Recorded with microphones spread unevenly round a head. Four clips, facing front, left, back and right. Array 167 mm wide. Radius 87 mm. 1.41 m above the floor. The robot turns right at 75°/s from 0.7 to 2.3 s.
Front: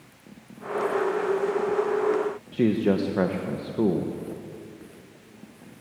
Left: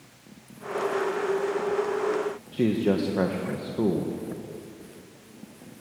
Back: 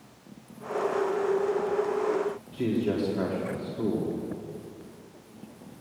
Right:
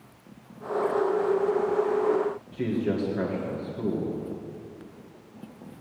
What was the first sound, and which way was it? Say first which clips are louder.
A man speaking: left 6 dB, front 6 dB; 25° left.